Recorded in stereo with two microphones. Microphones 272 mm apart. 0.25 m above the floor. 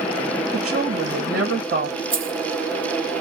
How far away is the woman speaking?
About 1.4 m.